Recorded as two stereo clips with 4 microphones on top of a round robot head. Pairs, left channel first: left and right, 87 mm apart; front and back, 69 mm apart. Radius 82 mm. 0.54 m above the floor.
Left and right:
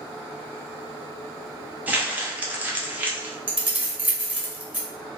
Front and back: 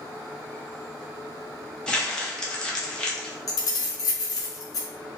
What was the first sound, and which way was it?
Crumpling, 55° right.